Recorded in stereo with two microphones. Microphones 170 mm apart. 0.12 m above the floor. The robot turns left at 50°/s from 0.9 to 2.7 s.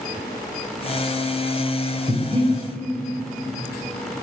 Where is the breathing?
45° right (ahead or behind), 3.5 m; by 2.5 s 25° right (ahead or behind), 3.5 m.